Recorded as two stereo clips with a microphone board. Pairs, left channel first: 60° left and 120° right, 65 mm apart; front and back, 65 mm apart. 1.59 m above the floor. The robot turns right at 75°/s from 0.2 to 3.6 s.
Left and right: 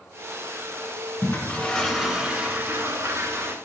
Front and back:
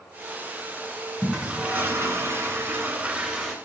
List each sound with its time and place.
1.2 s a toilet flushing: 100° left, 1.7 m; by 3.5 s 85° right, 1.7 m